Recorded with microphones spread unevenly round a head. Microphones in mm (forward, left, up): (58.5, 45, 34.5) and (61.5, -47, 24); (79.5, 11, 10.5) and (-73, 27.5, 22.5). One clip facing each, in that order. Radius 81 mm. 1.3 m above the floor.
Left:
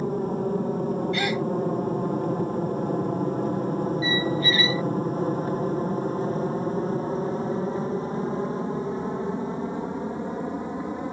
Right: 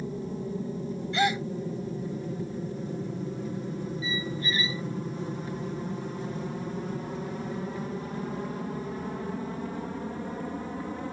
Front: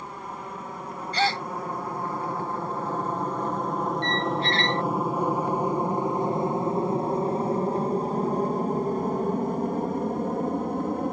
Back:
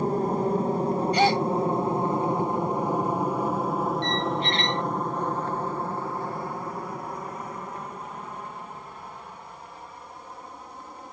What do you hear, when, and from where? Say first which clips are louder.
0.0 s an aircraft: left 8 dB, back 13 dB; 130° left; by 11.1 s 20° left
1.1 s a gasp: left 1 dB, back 3 dB; 150° right
4.0 s a squeak: left 8 dB, even; 105° left